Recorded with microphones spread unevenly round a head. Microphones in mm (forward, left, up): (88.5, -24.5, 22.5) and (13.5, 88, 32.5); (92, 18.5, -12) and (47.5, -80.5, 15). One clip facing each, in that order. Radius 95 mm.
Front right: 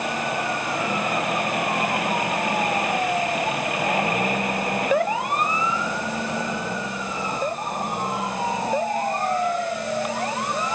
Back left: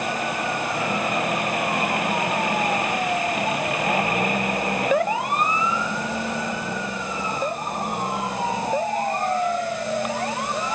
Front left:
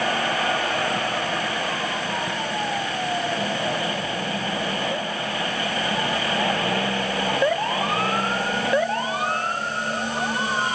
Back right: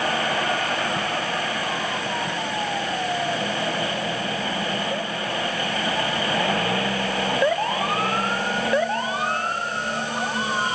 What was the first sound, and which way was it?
Only background noise.